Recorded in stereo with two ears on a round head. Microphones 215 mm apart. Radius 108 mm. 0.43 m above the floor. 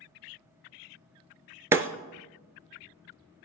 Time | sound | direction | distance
1.7 | breaking glass | 10° right (ahead or behind) | 0.7 m